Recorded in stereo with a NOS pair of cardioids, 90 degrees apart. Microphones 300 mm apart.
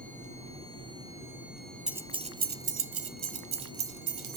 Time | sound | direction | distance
1.9 | keys jangling | straight ahead | 1.0 m